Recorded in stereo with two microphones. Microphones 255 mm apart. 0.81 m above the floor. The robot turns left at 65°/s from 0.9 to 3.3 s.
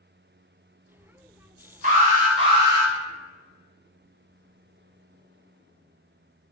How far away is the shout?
No shout in this recording.